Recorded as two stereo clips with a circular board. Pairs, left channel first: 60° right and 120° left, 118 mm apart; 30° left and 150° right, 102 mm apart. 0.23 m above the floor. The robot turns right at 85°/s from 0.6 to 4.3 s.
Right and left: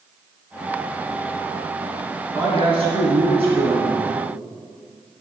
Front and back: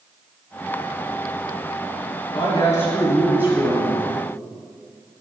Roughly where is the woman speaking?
Ahead left.